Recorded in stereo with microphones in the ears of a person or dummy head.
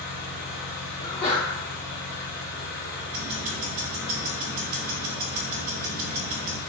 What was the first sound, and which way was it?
An engine running, 60° left (ahead or behind).